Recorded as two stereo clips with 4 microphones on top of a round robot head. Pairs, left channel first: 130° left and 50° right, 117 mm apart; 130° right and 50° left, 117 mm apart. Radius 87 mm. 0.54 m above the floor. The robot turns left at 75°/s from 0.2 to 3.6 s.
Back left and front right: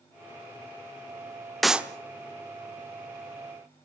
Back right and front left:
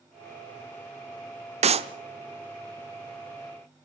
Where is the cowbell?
I don't hear a cowbell.